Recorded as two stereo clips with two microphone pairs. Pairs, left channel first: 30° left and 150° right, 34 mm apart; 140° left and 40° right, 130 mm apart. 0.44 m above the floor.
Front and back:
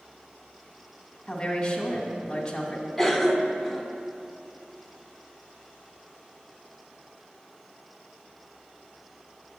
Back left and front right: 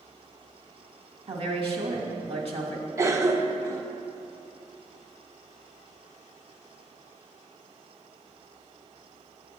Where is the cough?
55° right, 0.7 m.